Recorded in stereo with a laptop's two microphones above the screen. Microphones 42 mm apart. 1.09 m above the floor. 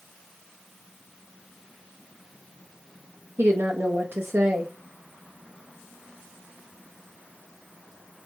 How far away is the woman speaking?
About 0.6 m.